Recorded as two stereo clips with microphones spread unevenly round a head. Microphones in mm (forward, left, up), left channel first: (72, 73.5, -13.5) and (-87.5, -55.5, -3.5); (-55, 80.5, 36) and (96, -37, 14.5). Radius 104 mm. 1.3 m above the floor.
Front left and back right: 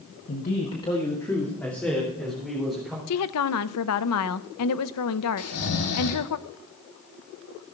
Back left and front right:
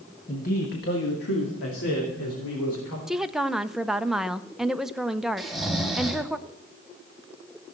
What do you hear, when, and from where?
0.3 s a man speaking: 85° left, 1.3 m; by 3.0 s 130° left, 4.5 m
3.1 s a woman speaking: 50° left, 0.6 m
5.4 s snoring: 55° left, 1.7 m